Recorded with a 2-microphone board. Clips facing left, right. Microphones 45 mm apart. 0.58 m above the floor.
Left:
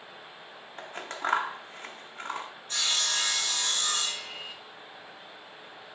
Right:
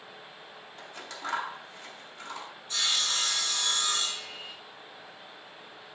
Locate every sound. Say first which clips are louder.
0.8 s scissors: left 6 dB; 45° left (ahead or behind), 0.7 m
2.7 s sawing: even; 55° left (ahead or behind), 4.5 m